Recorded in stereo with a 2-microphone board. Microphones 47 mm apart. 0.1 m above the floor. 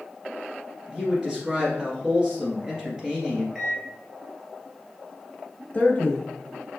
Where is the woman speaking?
25° left (ahead or behind), 1.4 m.